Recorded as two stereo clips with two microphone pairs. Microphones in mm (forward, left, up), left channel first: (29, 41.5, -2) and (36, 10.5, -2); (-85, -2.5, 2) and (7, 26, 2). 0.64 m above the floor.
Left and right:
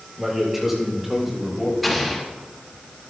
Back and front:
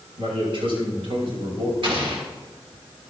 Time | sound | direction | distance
0.2 | a man speaking | straight ahead | 6 m
1.8 | an explosion | 15° left | 2 m